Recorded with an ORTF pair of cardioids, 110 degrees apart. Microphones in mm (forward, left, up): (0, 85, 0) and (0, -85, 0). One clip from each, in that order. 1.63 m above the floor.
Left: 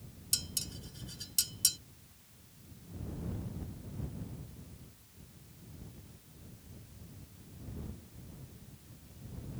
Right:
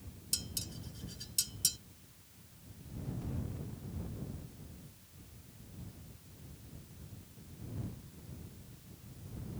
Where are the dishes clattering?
25° left.